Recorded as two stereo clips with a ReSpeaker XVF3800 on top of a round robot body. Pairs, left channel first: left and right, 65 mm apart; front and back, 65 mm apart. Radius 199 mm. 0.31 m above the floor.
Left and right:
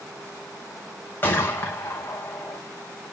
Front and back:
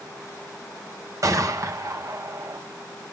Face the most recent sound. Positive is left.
turn(degrees=150)